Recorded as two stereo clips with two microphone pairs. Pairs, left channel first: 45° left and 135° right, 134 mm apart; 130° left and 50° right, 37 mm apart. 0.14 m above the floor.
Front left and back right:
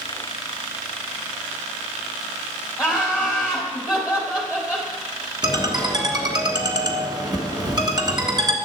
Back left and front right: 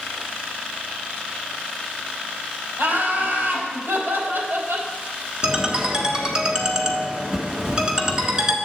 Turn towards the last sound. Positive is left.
turn(degrees=-100)